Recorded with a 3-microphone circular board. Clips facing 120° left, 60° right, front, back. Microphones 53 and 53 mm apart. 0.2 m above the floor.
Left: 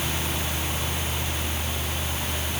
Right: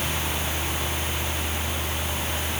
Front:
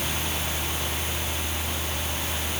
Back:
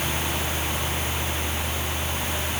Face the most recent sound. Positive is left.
No sound to turn to.